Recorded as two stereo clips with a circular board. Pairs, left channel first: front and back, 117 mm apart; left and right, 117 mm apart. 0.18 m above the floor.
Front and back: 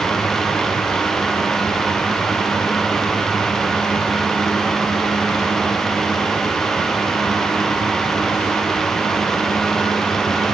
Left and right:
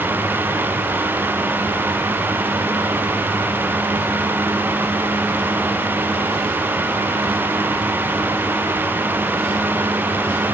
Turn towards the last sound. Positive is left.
No sound to turn to.